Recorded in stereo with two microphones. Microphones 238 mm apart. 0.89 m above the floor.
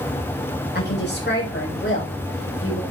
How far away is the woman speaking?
About 5.5 m.